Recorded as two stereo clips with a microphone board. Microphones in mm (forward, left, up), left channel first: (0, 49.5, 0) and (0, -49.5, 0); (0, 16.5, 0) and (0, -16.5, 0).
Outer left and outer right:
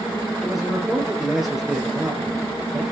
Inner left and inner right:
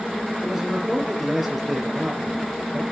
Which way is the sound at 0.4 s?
5° right (ahead or behind).